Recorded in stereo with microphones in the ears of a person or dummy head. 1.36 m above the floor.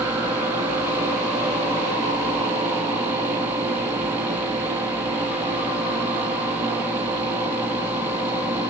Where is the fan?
15° right (ahead or behind), 0.7 m.